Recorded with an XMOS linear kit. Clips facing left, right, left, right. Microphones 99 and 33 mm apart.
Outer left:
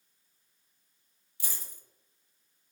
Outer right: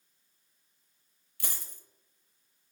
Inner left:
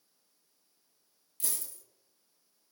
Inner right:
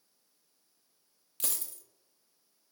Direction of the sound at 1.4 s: 65° right (ahead or behind).